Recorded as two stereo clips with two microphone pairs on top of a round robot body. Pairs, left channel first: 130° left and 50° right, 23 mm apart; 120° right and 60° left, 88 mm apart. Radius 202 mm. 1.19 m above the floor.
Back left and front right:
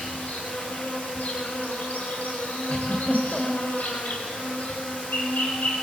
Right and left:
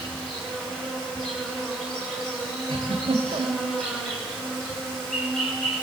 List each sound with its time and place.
0.0 s an insect: 160° left, 6 m
2.7 s a giggle: 90° left, 1.9 m